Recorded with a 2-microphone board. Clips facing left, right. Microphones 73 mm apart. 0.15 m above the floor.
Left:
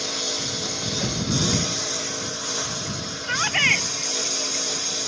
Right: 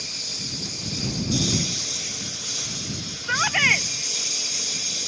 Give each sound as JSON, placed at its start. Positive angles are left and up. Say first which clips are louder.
{"t": 0.0, "sound": "a lawn mower", "louder": "left 9 dB", "side_deg": 70}
{"t": 3.2, "sound": "a shout", "louder": "right 2 dB", "side_deg": -10}